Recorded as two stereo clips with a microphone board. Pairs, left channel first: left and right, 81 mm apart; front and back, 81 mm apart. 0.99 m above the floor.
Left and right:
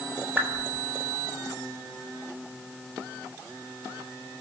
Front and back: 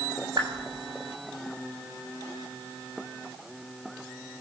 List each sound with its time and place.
0.4 s a whoosh: 155° right, 8 m